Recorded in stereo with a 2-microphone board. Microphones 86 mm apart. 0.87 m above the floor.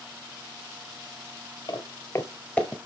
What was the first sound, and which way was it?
Footsteps, 45° left (ahead or behind).